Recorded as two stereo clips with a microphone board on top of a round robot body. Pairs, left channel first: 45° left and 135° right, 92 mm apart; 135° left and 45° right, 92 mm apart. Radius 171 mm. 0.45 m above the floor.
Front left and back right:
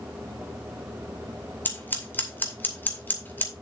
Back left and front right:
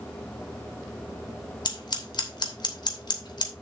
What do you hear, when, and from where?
1.6 s scissors: 110° left, 2.5 m